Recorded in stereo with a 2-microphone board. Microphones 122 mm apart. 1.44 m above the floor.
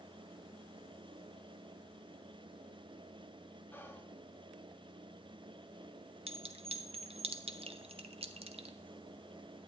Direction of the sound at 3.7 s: 15° left (ahead or behind).